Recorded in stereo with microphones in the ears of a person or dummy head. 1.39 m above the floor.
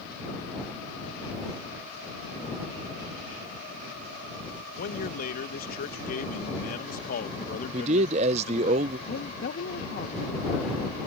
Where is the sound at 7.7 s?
40° right (ahead or behind).